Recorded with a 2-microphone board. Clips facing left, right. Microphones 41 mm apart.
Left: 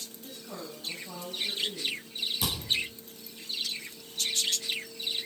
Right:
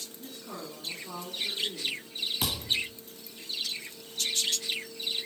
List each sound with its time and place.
0.2 s a woman speaking: 35° right (ahead or behind), 3 m
2.4 s a thud: 35° right (ahead or behind), 3.5 m